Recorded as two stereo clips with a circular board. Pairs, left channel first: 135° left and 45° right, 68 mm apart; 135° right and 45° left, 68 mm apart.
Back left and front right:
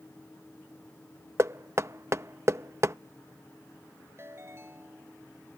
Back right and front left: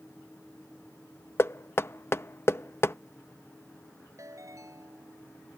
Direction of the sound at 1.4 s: 85° right.